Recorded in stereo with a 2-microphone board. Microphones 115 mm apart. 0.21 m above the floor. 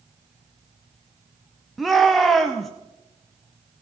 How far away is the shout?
About 1.2 m.